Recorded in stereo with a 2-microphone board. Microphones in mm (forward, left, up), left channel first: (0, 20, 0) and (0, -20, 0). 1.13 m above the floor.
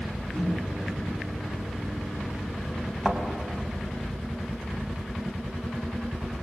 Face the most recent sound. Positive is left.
turn(degrees=-5)  # may be behind; listen again after turning